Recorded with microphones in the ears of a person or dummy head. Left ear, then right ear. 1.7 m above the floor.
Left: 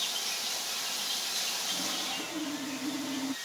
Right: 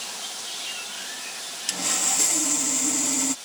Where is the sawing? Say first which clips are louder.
Right 6 dB; 85° right.